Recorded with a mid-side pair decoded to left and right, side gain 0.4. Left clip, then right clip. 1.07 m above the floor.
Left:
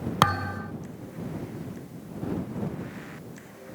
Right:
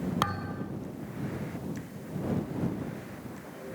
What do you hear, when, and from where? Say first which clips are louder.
0.2 s a thud: left 10 dB; 65° left